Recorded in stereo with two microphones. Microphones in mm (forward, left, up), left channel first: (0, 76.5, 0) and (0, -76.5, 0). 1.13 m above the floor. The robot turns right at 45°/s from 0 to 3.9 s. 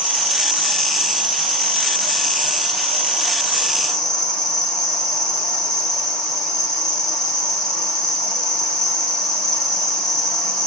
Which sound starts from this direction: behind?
An insect, at 0.0 s.